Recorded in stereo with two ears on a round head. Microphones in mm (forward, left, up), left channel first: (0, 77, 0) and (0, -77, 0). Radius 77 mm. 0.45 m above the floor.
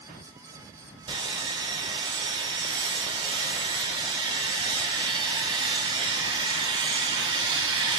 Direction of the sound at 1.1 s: 30° right (ahead or behind).